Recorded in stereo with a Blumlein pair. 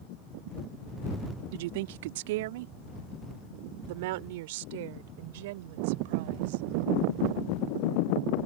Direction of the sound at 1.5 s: 50° right.